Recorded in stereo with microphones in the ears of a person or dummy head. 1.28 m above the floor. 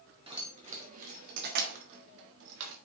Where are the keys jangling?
30° right (ahead or behind), 1.8 m; by 2.8 s 70° right (ahead or behind), 1.7 m.